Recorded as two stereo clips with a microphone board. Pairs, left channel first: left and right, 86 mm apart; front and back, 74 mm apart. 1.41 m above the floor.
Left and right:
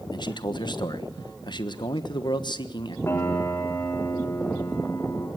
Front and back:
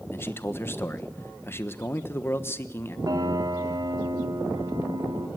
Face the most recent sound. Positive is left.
turn(degrees=150)